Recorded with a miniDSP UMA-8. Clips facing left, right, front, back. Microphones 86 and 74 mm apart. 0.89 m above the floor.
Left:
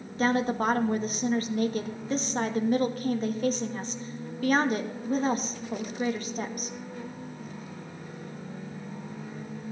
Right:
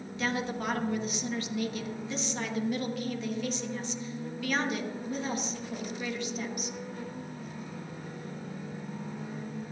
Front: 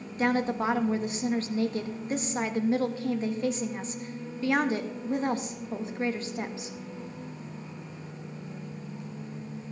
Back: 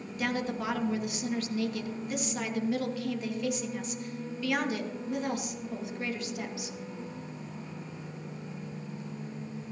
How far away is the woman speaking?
About 1.2 m.